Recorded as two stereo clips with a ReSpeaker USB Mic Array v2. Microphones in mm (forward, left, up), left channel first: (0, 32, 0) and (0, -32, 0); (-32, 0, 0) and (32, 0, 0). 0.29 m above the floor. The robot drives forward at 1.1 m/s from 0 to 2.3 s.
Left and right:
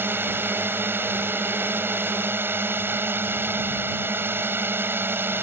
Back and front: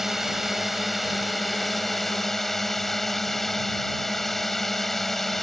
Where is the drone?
80° right; by 5.4 s 100° right.